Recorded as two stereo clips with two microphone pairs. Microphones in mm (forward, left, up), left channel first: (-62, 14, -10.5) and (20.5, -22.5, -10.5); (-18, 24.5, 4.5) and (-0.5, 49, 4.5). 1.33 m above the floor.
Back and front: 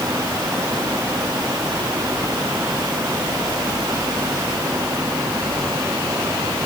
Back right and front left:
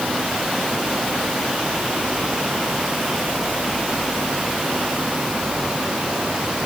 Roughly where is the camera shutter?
I don't hear a camera shutter.